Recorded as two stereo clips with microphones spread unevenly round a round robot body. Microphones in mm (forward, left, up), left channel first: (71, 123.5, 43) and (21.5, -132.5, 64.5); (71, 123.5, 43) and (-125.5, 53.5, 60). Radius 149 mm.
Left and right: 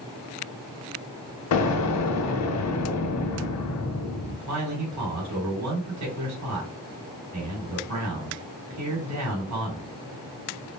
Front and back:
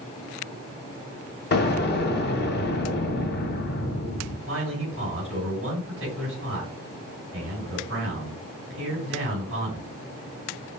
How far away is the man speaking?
About 3 m.